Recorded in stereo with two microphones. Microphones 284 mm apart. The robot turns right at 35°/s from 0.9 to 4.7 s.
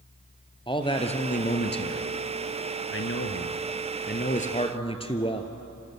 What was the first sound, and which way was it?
A man speaking, 20° left.